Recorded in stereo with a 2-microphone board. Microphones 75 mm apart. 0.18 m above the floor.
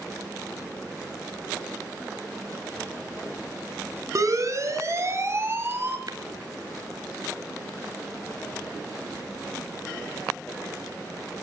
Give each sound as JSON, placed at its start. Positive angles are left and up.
{"t": 4.2, "sound": "a siren", "side_deg": -45, "distance_m": 2.0}
{"t": 6.1, "sound": "tapping", "side_deg": -60, "distance_m": 1.3}